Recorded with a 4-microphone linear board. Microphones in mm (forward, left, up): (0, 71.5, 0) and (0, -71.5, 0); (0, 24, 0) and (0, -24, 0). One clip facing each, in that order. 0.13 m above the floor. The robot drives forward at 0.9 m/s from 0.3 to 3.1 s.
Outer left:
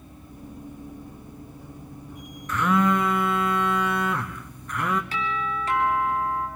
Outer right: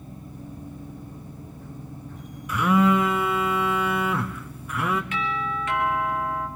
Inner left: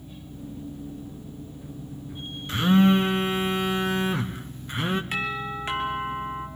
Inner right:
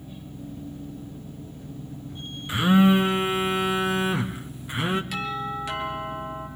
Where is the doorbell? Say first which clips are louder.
Even, even; 35° left (ahead or behind), 3.5 m.